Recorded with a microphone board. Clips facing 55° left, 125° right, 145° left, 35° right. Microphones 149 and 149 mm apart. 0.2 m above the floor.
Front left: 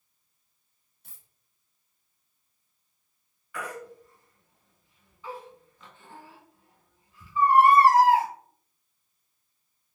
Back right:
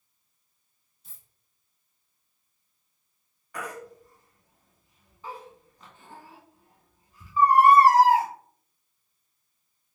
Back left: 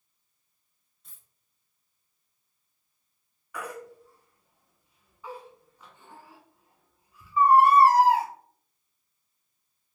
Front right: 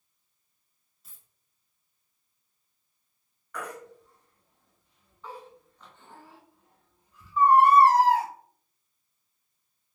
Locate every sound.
1.0 s a dropped coin: 50° left, 1.2 m
3.5 s a baby crying: 135° right, 1.0 m